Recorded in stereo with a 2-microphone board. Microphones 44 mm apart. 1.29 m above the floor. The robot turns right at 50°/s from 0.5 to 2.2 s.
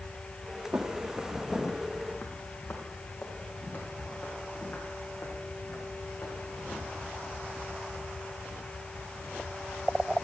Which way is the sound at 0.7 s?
25° right (ahead or behind).